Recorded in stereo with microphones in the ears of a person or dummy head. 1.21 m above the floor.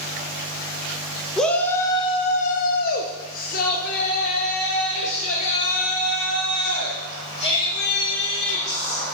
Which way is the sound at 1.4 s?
5° left (ahead or behind).